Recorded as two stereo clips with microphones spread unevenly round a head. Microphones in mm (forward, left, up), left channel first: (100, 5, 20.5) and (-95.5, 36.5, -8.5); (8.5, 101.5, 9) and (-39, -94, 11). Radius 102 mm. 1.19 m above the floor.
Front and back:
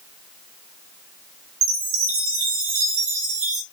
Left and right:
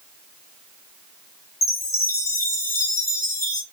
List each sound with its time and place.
1.6 s a chime: 150° left, 0.7 m